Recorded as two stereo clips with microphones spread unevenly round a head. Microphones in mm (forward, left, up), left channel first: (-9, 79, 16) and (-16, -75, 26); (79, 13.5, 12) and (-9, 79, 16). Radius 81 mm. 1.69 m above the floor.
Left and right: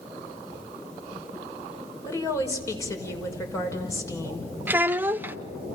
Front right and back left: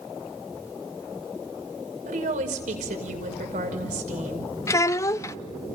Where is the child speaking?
45° right, 0.5 m.